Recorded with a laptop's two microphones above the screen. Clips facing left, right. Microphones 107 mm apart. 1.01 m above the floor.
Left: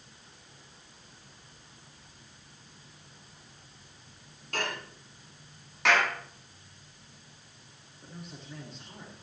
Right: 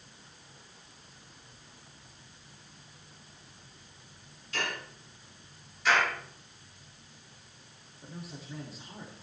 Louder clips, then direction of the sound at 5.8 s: Left 1 dB; 80° left.